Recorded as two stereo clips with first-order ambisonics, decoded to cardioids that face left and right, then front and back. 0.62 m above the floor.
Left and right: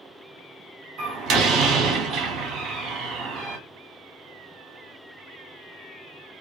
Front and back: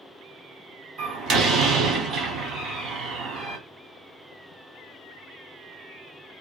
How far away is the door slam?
About 0.9 m.